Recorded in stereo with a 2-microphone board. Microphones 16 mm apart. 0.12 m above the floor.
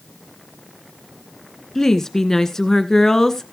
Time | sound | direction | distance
1.8 | a woman speaking | 30° left (ahead or behind) | 1.4 m